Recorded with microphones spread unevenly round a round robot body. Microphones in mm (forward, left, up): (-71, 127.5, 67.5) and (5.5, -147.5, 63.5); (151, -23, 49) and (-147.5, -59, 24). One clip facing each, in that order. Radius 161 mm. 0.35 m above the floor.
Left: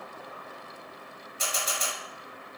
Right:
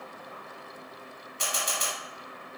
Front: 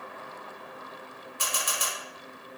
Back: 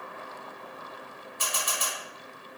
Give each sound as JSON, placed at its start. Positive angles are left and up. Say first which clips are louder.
{"t": 1.4, "sound": "a camera shutter", "louder": "even, even", "azimuth_deg": 20, "distance_m": 1.7}